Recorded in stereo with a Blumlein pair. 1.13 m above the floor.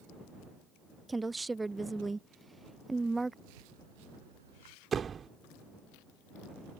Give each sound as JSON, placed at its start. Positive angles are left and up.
{"t": 1.1, "sound": "a woman speaking", "azimuth_deg": -10}
{"t": 3.5, "sound": "a rattle", "azimuth_deg": -60}
{"t": 4.9, "sound": "a door slam", "azimuth_deg": -20}